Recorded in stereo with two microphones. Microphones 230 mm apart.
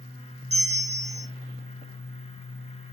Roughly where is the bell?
Right.